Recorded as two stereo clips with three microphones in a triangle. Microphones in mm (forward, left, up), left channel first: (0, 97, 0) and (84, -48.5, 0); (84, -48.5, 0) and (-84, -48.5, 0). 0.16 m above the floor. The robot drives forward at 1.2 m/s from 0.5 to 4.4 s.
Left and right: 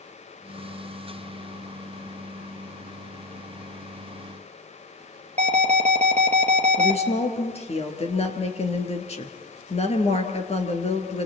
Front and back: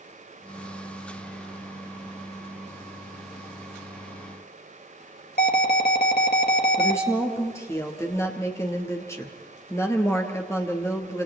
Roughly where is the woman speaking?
Left.